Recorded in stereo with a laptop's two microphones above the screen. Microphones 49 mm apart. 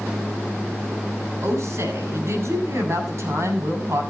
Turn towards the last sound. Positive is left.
turn(degrees=-65)  # may be behind; listen again after turning